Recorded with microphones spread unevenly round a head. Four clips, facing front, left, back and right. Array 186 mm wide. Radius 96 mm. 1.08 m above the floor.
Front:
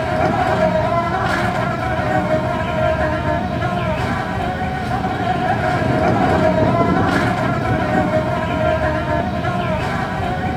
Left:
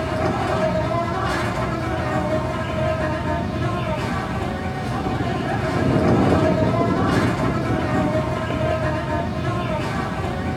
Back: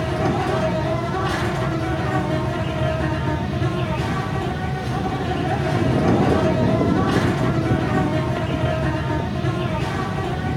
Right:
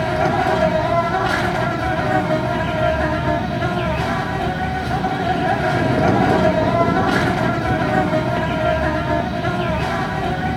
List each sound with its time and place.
0.0 s an insect: 40° right, 1.4 m